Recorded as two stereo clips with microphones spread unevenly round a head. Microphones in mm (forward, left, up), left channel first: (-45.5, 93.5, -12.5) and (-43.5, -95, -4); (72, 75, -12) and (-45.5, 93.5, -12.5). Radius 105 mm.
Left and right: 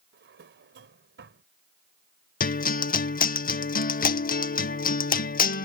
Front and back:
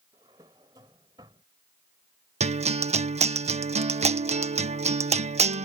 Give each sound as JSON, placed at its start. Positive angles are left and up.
{"t": 0.1, "sound": "a drawer", "azimuth_deg": -120}
{"t": 2.4, "sound": "a guitar", "azimuth_deg": 135}